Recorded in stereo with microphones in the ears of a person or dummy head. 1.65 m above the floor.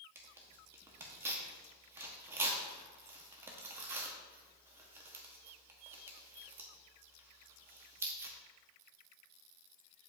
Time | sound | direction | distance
0.1 | tearing paper | 10° right (ahead or behind) | 0.9 m